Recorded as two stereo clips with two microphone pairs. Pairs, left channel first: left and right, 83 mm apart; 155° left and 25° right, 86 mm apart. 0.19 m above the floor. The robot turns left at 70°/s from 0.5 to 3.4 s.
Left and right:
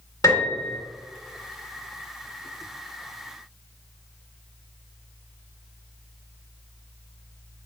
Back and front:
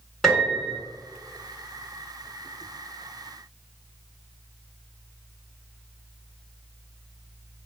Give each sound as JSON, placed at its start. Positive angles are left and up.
{"t": 0.2, "sound": "a piano", "azimuth_deg": 65, "distance_m": 1.6}